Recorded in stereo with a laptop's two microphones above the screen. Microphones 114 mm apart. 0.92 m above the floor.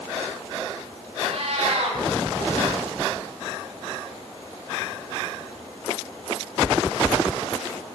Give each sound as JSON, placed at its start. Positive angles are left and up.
{"t": 1.2, "sound": "a cat meowing", "side_deg": -75, "distance_m": 2.0}